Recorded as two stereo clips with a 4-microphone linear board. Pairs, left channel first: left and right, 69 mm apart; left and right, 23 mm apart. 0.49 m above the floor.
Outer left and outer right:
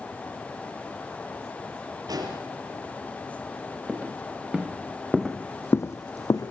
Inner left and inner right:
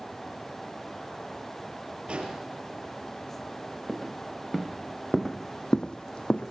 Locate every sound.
2.1 s an explosion: 70° right (ahead or behind), 5 m
3.9 s footsteps: 20° right (ahead or behind), 3.5 m; by 6.5 s 60° left (ahead or behind), 1.3 m